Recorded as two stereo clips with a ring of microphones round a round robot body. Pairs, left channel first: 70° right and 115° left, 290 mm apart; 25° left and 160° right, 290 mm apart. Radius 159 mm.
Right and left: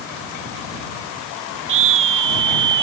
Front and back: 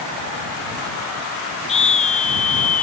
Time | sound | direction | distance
1.7 | a scream | 90° left | ?